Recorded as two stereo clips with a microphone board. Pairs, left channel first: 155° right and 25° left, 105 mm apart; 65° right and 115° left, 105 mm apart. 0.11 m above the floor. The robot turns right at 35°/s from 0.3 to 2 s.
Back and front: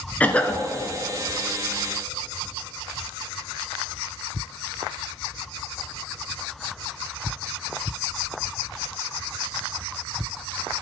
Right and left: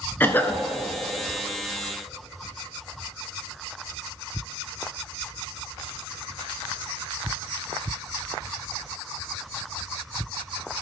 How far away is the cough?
About 1.2 m.